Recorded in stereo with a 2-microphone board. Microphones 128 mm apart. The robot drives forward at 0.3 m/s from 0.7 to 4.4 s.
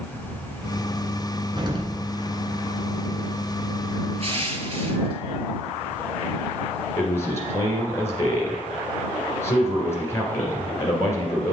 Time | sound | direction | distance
1.6 | an explosion | 35° right (ahead or behind) | 1.4 m
4.2 | crushing | 50° right (ahead or behind) | 1.0 m
7.0 | a man speaking | 20° left (ahead or behind) | 2.5 m